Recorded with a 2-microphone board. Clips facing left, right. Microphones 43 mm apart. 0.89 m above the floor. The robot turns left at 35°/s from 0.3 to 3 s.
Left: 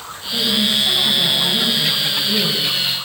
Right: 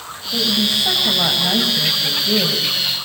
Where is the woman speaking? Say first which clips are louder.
Left 1 dB; 30° right, 5.5 m; by 2.7 s 115° right, 5.5 m.